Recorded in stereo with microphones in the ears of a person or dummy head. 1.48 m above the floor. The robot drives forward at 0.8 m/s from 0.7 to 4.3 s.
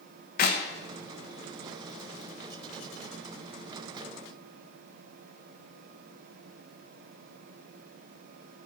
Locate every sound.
0.4 s a clap: 55° left (ahead or behind), 1.4 m